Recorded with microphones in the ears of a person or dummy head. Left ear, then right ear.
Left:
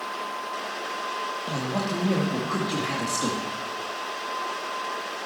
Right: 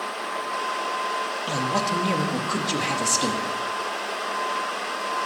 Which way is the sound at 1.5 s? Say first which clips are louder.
Right 5 dB; 75° right (ahead or behind).